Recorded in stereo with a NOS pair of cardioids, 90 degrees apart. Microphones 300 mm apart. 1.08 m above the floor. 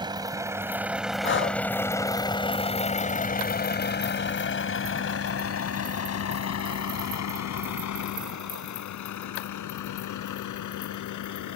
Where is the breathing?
40° left.